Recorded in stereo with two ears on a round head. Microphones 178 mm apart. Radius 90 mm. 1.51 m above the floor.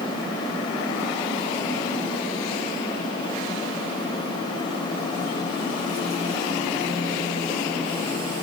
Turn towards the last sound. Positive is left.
No sound to turn to.